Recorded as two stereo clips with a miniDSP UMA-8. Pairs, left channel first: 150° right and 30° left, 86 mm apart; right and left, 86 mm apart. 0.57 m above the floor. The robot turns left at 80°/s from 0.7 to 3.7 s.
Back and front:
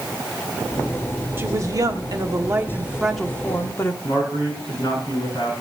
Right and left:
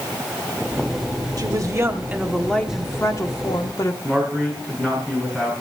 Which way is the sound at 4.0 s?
170° right.